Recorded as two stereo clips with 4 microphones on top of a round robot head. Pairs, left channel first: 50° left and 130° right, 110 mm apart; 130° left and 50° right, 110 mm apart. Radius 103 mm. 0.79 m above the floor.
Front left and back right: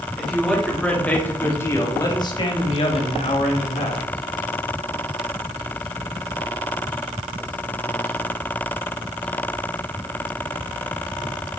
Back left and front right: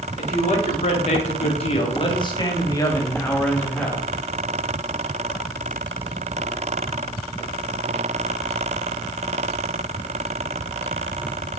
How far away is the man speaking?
About 2.5 m.